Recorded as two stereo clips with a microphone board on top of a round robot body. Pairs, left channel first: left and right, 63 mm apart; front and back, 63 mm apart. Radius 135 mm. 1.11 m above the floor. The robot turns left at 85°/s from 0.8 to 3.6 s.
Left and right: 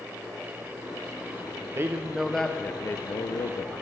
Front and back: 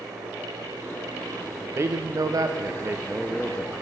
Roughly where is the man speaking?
Behind right.